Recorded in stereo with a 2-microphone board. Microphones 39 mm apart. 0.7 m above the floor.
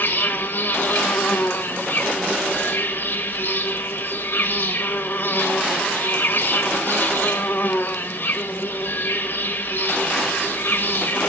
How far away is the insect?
About 0.9 m.